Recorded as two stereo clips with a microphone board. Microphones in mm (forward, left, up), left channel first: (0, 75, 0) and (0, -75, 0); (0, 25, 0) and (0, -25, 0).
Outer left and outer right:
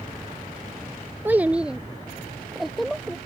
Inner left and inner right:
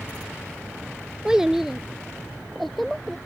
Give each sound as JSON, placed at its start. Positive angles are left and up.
{"t": 1.2, "sound": "a child speaking", "side_deg": -15}